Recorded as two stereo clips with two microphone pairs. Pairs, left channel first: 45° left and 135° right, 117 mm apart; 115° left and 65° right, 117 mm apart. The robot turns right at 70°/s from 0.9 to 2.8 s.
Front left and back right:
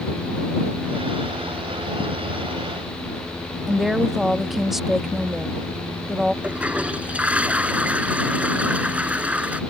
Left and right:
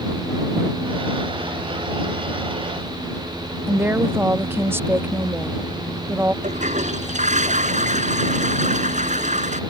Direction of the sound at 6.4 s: 55° right.